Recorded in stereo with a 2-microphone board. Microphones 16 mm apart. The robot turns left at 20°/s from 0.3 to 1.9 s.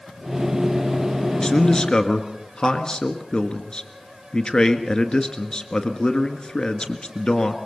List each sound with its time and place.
1.4 s a man speaking: 40° left (ahead or behind), 1.6 m